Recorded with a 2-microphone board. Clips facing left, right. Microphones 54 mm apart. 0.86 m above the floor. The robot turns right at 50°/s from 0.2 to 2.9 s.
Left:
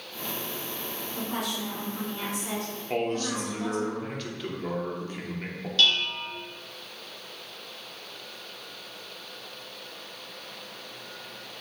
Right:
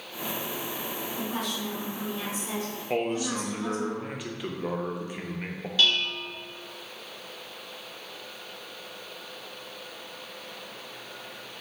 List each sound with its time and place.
1.2 s a woman speaking: 70° left, 1.6 m; by 3.9 s 155° left, 1.6 m
2.9 s a man speaking: 10° right (ahead or behind), 0.6 m
5.8 s dishes clattering: 10° right (ahead or behind), 0.5 m